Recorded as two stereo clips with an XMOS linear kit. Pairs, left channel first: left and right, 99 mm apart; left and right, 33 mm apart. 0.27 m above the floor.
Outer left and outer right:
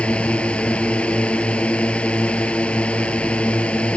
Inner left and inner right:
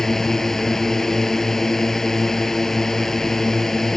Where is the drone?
10° left (ahead or behind).